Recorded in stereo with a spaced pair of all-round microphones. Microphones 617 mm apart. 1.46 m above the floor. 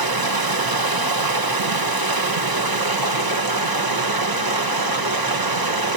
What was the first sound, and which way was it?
Running water, 35° right (ahead or behind).